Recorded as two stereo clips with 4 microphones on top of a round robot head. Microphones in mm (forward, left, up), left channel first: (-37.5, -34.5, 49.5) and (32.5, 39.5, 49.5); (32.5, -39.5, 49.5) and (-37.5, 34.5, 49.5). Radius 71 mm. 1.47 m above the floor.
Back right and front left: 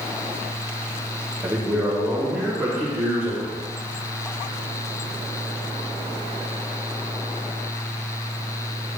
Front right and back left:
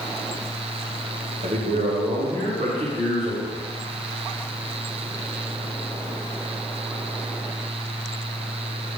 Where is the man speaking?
120° left, 1.5 m.